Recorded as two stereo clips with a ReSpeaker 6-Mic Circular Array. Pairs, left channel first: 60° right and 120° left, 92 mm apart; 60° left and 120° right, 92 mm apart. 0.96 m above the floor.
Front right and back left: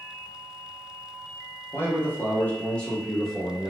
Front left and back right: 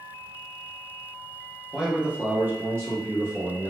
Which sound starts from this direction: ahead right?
A man speaking, at 1.7 s.